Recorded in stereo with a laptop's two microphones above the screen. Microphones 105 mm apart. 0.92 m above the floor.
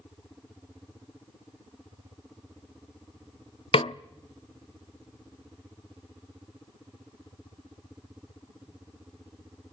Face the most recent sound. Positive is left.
turn(degrees=60)  # may be behind; listen again after turning